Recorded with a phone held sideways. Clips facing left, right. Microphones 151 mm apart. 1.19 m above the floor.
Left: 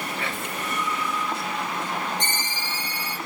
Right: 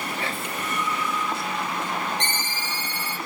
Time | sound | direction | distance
0.2 | whispering | 35° right (ahead or behind) | 2 m
2.2 | a ringtone | 10° left (ahead or behind) | 2 m